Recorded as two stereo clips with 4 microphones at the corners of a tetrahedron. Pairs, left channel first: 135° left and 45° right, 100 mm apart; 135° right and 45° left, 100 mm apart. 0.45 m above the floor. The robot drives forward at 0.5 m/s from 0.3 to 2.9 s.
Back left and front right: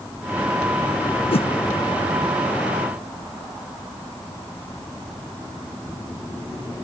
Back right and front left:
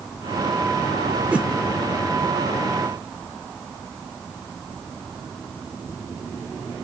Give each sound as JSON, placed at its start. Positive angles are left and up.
{"t": 1.3, "sound": "a whoosh", "azimuth_deg": 120, "distance_m": 0.6}